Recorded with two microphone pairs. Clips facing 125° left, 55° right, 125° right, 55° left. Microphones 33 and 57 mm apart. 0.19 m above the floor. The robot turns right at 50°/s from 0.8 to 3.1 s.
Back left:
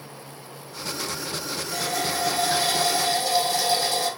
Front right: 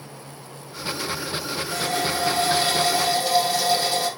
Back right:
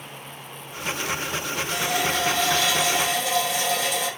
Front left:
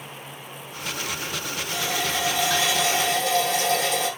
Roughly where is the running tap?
Ahead right.